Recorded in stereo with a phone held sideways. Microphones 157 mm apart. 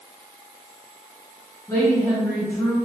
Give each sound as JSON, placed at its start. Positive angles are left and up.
{"t": 1.7, "sound": "a woman speaking", "side_deg": 15, "distance_m": 1.0}